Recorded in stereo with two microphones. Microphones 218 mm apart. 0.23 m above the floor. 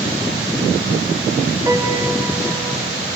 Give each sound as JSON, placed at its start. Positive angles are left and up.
{"t": 1.7, "sound": "a piano", "side_deg": -15, "distance_m": 1.3}